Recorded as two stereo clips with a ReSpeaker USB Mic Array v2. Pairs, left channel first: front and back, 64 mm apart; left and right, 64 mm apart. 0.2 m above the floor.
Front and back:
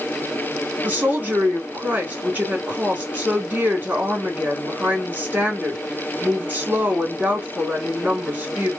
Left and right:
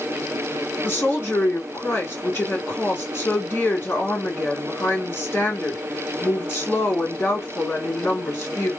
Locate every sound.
0.8 s a woman speaking: 130° left, 2.5 m